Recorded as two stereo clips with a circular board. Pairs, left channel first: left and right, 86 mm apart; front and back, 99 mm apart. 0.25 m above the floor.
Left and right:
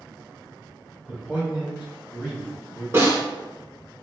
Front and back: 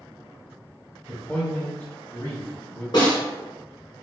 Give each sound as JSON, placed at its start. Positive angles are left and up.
{"t": 1.1, "sound": "a man speaking", "azimuth_deg": -75, "distance_m": 1.8}
{"t": 2.9, "sound": "a snare drum", "azimuth_deg": -35, "distance_m": 1.5}